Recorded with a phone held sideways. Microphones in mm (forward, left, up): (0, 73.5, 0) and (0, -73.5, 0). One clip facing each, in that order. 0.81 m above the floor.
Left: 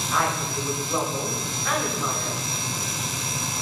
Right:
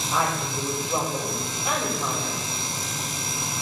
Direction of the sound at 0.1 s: 20° right (ahead or behind).